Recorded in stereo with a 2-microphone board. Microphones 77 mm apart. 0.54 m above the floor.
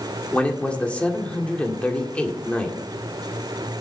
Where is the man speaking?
15° left (ahead or behind), 1.7 m.